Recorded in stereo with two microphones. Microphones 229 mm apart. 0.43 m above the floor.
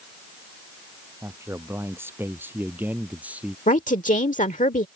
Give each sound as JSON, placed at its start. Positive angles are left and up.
{"t": 1.2, "sound": "a man speaking", "side_deg": -10}
{"t": 3.7, "sound": "a woman speaking", "side_deg": 30}